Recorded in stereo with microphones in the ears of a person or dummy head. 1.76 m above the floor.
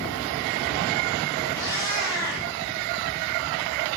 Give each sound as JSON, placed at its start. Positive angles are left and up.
{"t": 1.5, "sound": "a cat meowing", "side_deg": 20, "distance_m": 3.5}